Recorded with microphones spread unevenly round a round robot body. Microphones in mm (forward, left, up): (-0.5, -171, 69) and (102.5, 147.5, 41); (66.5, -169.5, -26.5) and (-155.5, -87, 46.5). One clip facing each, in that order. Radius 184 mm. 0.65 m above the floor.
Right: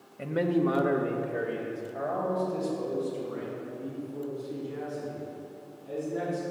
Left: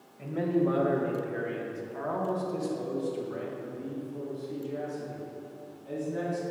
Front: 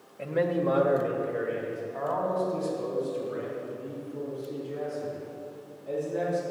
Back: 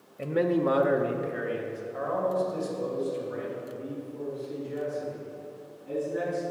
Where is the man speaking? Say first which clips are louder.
Right 1 dB, back 2 dB; 130° right, 0.9 m; by 6.4 s 120° left, 7 m.